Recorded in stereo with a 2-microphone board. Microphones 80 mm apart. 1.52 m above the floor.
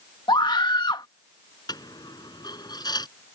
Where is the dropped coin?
65° left (ahead or behind).